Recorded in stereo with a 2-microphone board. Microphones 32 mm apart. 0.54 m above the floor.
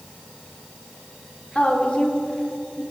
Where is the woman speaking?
35° left (ahead or behind), 1.7 m; by 2.8 s 20° left (ahead or behind), 2.0 m.